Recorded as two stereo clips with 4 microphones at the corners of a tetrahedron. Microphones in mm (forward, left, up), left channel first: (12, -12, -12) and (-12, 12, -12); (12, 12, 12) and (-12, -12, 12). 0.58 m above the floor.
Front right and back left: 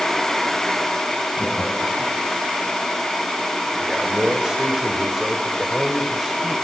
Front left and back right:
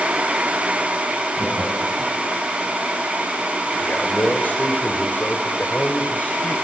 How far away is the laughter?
About 5.5 m.